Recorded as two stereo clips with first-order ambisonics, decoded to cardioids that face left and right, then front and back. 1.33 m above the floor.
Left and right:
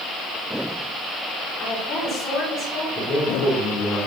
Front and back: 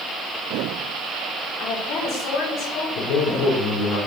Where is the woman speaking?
40° left, 3.5 m.